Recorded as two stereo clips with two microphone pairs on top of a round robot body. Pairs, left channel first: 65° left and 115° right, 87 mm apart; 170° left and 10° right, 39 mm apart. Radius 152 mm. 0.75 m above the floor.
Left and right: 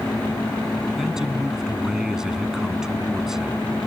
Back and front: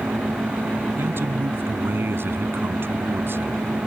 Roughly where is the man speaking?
Ahead right.